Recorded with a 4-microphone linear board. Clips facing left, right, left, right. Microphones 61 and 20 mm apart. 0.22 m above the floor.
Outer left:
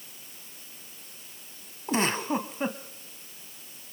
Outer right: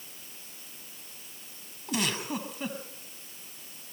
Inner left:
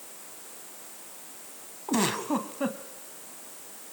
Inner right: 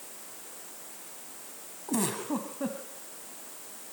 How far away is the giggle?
About 1.7 m.